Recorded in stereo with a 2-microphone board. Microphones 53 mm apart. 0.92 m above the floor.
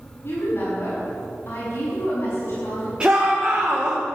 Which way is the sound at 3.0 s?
20° right (ahead or behind).